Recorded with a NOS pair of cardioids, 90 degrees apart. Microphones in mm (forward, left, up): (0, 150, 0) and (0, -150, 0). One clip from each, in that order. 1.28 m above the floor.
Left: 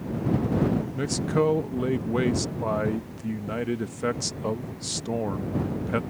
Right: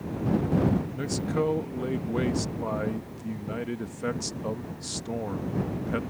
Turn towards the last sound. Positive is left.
turn(degrees=20)